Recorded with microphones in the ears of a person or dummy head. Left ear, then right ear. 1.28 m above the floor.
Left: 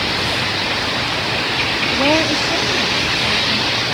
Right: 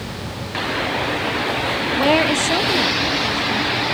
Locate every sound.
1.9 s a woman speaking: 10° left (ahead or behind), 0.8 m; by 3.8 s 60° right (ahead or behind), 2.5 m